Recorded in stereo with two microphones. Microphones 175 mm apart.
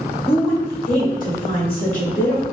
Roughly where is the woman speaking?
Left.